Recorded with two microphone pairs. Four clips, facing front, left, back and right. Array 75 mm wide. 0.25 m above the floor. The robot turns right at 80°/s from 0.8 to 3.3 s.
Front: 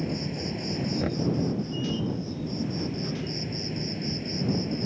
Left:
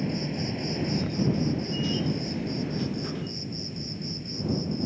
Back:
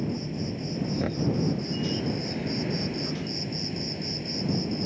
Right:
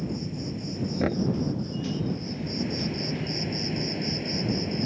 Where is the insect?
55° left; by 4.9 s 105° right.